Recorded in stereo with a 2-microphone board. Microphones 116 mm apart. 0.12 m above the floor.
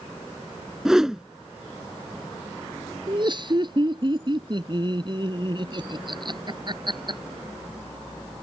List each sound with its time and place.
0.8 s a whoosh: 5° right (ahead or behind)
3.1 s laughter: 40° right (ahead or behind)